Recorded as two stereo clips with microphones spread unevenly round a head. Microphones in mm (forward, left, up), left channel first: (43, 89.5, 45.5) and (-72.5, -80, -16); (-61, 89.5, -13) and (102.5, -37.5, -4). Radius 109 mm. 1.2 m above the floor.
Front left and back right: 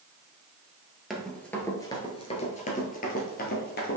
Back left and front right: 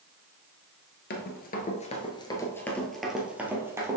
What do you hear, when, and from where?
1.1 s running footsteps: 130° left, 1.6 m; by 4.0 s 35° left, 2.5 m